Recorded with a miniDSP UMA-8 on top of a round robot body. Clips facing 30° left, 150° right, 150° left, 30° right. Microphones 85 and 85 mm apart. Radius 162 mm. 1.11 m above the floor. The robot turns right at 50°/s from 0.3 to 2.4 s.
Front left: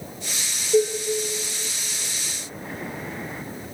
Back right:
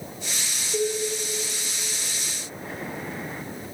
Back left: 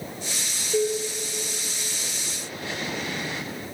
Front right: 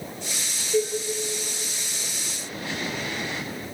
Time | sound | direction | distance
0.7 | dishes clattering | 70° left | 1.0 m